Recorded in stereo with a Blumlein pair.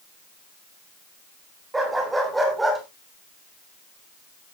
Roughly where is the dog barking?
Ahead.